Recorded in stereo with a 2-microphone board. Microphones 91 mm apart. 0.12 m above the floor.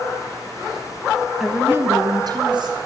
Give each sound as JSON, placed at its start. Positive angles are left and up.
{"t": 1.4, "sound": "a woman speaking", "side_deg": -5, "distance_m": 1.0}